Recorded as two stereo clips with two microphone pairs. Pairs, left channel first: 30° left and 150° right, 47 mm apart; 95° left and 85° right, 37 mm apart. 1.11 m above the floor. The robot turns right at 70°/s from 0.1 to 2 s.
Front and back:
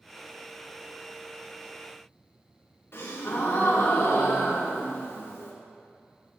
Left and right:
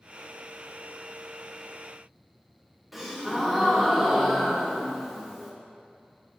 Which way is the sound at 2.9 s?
Straight ahead.